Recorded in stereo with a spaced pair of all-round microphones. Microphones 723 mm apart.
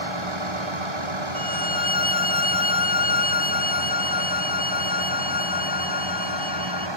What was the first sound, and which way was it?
A vehicle, 45° right (ahead or behind).